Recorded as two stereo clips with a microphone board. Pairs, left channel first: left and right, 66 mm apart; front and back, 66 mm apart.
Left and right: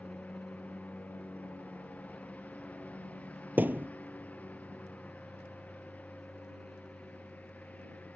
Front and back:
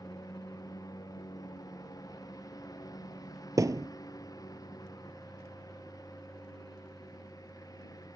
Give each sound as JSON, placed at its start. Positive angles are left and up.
{"t": 0.0, "sound": "a lawn mower", "azimuth_deg": 20}
{"t": 3.6, "sound": "a thud", "azimuth_deg": -150}